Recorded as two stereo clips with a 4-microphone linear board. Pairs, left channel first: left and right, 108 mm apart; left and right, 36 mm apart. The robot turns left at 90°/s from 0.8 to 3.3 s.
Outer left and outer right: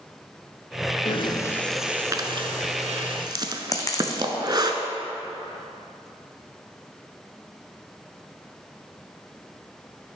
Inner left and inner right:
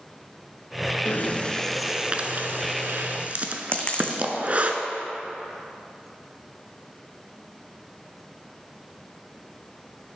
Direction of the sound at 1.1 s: 65° left (ahead or behind).